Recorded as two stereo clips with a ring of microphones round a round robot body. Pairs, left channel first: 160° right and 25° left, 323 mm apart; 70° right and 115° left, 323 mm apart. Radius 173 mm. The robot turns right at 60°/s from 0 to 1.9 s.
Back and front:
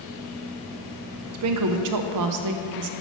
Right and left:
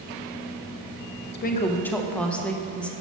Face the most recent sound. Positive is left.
turn(degrees=20)